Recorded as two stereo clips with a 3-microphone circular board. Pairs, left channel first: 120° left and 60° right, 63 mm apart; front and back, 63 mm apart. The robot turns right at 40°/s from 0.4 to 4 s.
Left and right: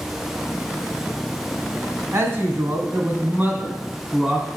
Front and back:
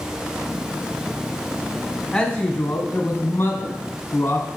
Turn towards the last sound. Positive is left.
turn(degrees=10)